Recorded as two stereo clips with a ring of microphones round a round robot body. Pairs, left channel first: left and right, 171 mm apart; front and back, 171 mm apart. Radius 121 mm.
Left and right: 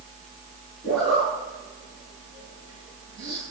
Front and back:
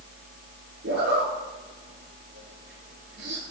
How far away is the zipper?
About 9.5 m.